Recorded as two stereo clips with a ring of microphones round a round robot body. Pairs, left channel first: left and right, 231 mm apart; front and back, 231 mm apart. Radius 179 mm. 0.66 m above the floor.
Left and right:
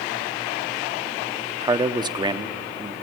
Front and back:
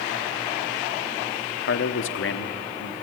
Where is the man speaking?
20° right, 1.3 m.